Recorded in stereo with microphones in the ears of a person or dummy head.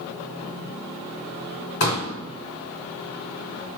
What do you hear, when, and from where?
1.8 s a pop: 60° left (ahead or behind), 3 m